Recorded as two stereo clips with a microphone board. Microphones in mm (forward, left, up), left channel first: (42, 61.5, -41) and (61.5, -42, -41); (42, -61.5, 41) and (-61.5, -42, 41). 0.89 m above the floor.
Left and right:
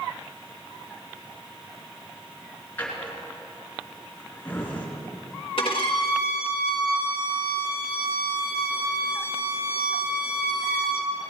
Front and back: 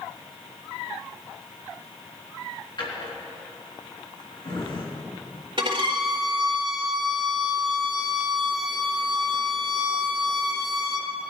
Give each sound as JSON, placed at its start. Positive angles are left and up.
{"t": 2.8, "sound": "a drawer", "azimuth_deg": 30, "distance_m": 3.0}
{"t": 5.6, "sound": "a violin", "azimuth_deg": 130, "distance_m": 1.6}